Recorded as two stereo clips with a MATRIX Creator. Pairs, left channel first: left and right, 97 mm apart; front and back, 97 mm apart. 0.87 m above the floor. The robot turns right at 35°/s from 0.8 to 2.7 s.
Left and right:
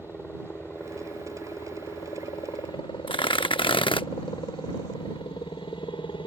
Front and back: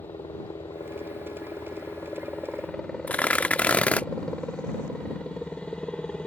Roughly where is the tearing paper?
Left.